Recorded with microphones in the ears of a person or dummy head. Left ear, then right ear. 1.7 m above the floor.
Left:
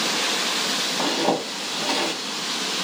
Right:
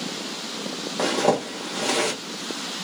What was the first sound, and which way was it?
A zipper, 45° right (ahead or behind).